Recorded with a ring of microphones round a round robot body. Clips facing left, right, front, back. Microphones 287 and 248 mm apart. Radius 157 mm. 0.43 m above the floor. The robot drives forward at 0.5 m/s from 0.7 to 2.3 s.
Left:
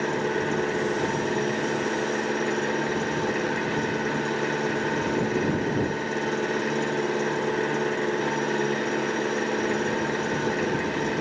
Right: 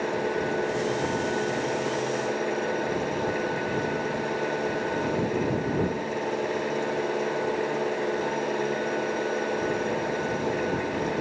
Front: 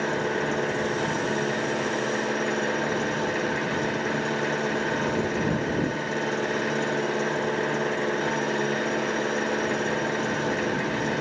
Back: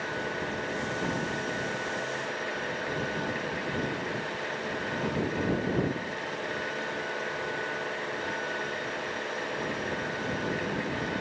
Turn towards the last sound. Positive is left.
turn(degrees=25)